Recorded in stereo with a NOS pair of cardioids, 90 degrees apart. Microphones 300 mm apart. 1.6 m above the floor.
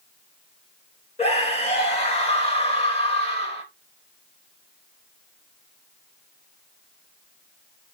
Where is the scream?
20° left, 3.5 m.